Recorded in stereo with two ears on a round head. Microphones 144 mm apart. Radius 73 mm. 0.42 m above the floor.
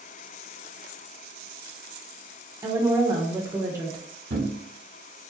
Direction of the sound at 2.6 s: 20° right (ahead or behind).